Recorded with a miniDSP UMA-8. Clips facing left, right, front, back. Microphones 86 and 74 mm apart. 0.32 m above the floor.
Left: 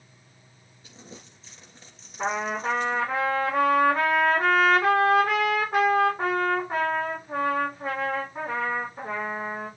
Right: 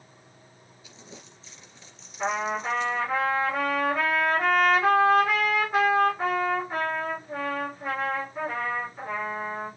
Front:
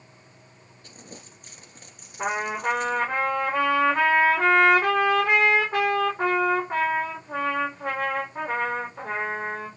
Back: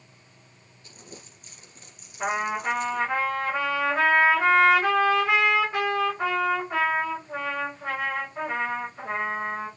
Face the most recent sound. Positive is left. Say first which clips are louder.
# even, even
turn(degrees=45)